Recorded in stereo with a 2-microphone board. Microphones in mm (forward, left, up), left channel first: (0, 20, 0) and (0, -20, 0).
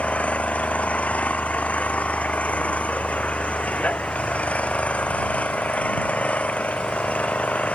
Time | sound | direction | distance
0.0 | an engine running | 35° left (ahead or behind) | ?